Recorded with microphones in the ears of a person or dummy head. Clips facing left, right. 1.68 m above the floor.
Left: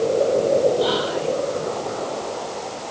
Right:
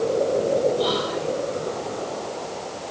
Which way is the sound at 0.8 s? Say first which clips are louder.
Left 3 dB; 85° right.